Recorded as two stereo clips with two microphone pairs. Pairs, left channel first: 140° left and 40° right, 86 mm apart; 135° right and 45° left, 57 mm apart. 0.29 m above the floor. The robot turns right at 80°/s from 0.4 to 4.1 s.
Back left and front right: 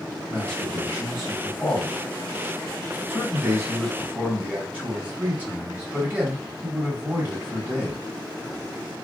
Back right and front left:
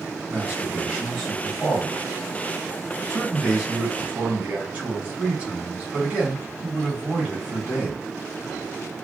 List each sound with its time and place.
0.3 s a man speaking: 70° left, 1.3 m; by 8.0 s 5° left, 1.3 m